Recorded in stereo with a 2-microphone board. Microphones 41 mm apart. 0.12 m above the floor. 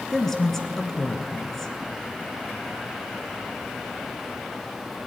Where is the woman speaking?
10° left (ahead or behind), 1.4 m.